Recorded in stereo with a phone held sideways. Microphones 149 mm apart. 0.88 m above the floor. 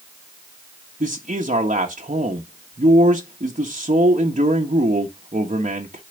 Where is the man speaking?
55° right (ahead or behind), 1.5 m.